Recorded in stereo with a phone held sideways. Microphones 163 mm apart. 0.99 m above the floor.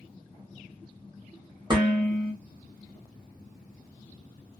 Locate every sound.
1.7 s dishes clattering: 30° right (ahead or behind), 1.2 m